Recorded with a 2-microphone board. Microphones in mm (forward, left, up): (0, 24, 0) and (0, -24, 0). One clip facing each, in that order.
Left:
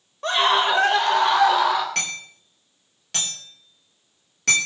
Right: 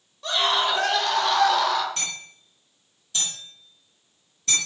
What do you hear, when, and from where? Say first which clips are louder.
0.2 s a scream: left 4 dB; 45° left (ahead or behind), 3 m; by 1.9 s 15° left (ahead or behind), 3 m
1.9 s hammering: left 5 dB; 75° left (ahead or behind), 5.5 m